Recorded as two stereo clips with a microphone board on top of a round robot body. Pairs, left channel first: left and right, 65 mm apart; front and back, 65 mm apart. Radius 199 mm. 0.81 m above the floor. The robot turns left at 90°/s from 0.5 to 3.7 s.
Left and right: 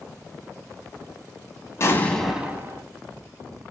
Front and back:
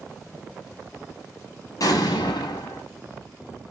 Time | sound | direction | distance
1.8 | an explosion | 40° left | 0.6 m